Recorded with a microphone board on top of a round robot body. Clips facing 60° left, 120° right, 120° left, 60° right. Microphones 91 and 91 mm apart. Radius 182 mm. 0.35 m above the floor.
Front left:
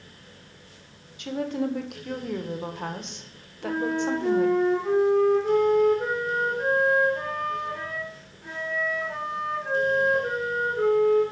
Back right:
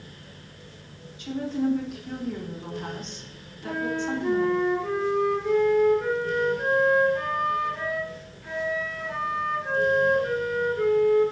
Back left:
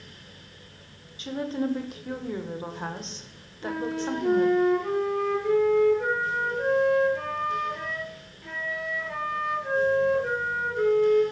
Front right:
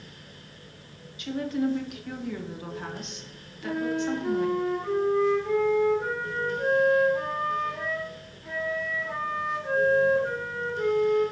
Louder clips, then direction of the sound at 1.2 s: Back right 1 dB, front right 1 dB; 65° left.